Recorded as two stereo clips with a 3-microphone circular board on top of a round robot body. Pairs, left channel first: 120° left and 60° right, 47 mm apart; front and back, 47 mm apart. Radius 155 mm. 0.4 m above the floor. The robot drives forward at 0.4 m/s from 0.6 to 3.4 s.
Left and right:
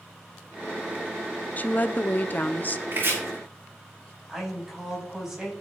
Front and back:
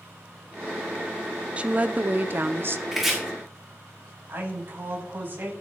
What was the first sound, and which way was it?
A woman speaking, 135° left.